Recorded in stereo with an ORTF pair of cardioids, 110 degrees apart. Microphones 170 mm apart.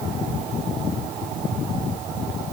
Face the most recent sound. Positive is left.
No sound to turn to.